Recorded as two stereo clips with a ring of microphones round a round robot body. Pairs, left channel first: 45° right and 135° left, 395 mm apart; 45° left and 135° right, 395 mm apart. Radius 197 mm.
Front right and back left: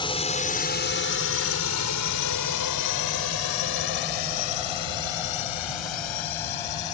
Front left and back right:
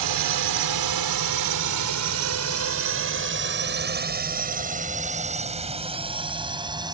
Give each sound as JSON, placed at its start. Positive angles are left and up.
{"t": 0.0, "sound": "a drone", "azimuth_deg": -120}